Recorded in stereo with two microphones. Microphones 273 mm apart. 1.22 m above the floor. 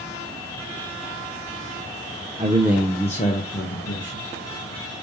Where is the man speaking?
25° right (ahead or behind), 0.8 m; by 4.3 s 65° left (ahead or behind), 1.6 m.